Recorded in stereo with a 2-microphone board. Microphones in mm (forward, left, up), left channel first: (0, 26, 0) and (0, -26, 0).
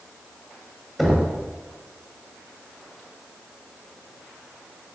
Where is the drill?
I don't hear a drill.